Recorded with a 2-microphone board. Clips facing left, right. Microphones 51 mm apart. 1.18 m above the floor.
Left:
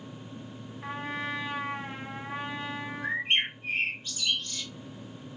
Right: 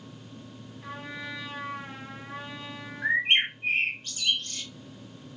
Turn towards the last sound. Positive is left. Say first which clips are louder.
# right 5 dB
turn(degrees=-60)  # may be behind; listen again after turning